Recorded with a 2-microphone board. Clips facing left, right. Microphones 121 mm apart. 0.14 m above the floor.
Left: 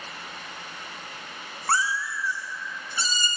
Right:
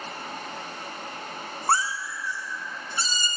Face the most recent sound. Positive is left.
turn(degrees=-35)  # may be behind; listen again after turning